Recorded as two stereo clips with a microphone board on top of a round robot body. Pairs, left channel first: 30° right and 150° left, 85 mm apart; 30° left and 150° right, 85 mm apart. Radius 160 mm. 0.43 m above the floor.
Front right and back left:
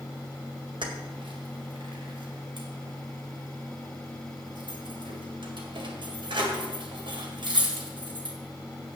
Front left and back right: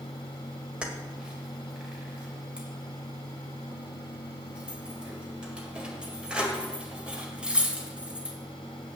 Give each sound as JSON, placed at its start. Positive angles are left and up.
{"t": 0.8, "sound": "keys jangling", "azimuth_deg": 130, "distance_m": 2.0}